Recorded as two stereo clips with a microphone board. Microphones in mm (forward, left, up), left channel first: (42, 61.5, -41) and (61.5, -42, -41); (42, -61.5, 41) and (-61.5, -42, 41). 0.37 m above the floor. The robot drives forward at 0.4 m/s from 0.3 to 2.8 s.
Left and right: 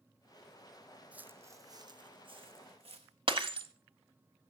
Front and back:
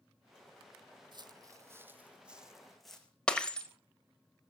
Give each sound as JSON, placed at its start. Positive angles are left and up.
{"t": 1.1, "sound": "footsteps", "azimuth_deg": -155, "distance_m": 0.7}
{"t": 3.3, "sound": "breaking glass", "azimuth_deg": -90, "distance_m": 1.2}